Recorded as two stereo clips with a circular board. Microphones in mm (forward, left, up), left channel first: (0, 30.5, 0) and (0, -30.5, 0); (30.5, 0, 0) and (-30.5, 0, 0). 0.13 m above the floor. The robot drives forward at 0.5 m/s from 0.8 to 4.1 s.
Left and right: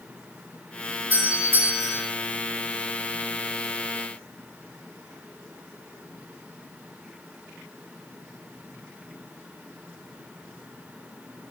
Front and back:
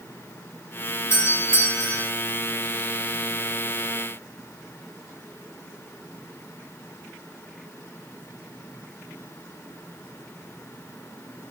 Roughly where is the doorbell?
Ahead right.